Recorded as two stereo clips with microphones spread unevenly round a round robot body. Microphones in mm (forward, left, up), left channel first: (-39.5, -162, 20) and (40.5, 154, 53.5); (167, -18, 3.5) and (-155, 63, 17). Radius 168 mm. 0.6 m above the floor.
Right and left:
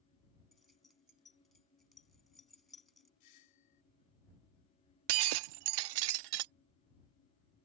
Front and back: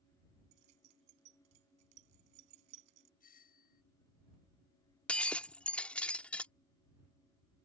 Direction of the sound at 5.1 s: 70° left.